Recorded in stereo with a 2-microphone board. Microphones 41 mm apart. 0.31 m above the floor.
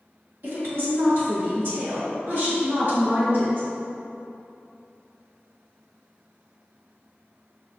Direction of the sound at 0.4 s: 60° right (ahead or behind).